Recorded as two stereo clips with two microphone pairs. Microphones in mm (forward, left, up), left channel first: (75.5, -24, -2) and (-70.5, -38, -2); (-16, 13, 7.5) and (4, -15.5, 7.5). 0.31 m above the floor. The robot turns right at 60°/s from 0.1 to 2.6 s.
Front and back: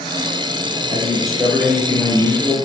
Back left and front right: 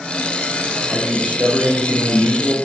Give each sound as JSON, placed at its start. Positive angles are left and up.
{"t": 0.9, "sound": "a man speaking", "azimuth_deg": -130, "distance_m": 5.0}